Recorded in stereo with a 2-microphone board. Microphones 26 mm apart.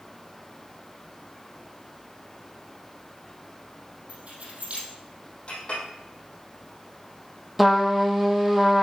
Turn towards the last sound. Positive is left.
turn(degrees=-5)  # may be behind; listen again after turning